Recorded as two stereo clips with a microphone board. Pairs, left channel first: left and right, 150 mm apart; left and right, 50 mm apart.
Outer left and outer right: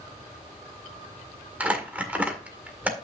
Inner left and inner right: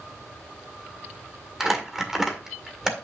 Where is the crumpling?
10° right (ahead or behind), 1.9 m.